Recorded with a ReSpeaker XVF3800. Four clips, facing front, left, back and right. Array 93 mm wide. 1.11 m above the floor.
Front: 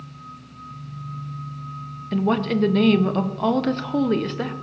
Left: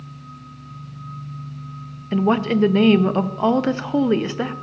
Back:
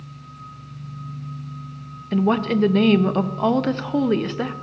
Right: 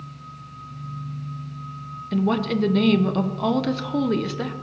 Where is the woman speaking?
110° left, 0.6 m.